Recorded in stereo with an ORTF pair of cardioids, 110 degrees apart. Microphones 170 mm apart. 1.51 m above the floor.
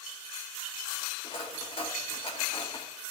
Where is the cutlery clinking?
35° left, 2.5 m.